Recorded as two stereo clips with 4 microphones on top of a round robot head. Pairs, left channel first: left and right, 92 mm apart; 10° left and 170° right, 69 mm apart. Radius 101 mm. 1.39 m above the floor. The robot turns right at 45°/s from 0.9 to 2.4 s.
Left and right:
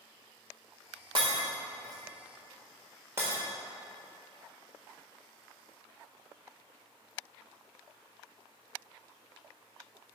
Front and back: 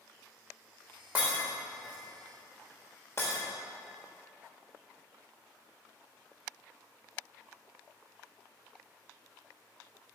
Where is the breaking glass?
100° right, 1.1 m; by 3.4 s 45° right, 1.1 m.